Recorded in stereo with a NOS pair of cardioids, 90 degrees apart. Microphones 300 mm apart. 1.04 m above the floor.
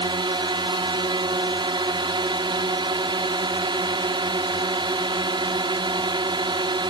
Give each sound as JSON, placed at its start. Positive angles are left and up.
{"t": 0.0, "sound": "a drone", "azimuth_deg": -15}